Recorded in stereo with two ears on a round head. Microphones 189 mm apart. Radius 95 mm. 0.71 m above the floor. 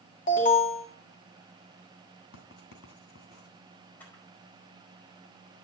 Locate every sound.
0.3 s an alarm: 40° left (ahead or behind), 2.5 m
2.3 s writing: 70° left (ahead or behind), 2 m
4.0 s a camera shutter: 10° left (ahead or behind), 4.5 m